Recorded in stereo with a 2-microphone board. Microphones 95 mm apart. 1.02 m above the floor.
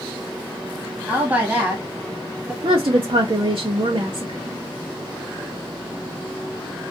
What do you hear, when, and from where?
1.1 s a woman speaking: 15° right (ahead or behind), 1.1 m
2.6 s a woman speaking: 60° right (ahead or behind), 0.6 m